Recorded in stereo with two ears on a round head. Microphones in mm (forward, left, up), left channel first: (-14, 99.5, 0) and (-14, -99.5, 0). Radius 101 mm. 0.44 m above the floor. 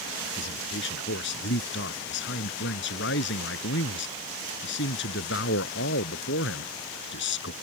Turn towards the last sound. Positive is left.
turn(degrees=55)  # may be behind; listen again after turning